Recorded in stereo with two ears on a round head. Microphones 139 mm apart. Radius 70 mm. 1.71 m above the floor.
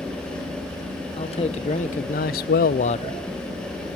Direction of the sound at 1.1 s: 35° left (ahead or behind).